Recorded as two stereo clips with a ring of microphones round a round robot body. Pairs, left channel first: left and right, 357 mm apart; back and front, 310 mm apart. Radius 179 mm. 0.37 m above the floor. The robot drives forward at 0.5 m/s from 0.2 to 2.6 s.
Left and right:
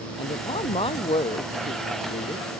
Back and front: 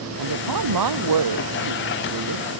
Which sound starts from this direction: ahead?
A woman speaking, at 0.2 s.